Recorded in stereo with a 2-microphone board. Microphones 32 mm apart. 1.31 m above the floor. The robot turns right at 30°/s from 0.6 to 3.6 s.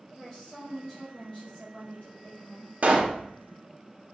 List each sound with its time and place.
0.2 s a woman speaking: straight ahead, 1.9 m; by 2.7 s 65° left, 1.9 m
2.8 s a pop: 50° right (ahead or behind), 0.7 m; by 3.2 s 35° right (ahead or behind), 0.7 m